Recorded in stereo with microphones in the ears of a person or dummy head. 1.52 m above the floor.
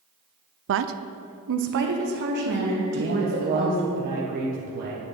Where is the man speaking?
50° right (ahead or behind), 1.3 m.